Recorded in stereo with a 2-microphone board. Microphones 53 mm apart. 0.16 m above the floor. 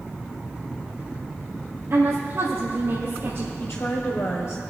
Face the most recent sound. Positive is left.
turn(degrees=65)  # may be behind; listen again after turning